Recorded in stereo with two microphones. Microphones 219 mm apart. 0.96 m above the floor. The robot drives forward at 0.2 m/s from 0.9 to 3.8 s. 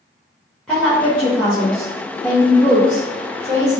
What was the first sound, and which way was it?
A woman speaking, 5° left (ahead or behind).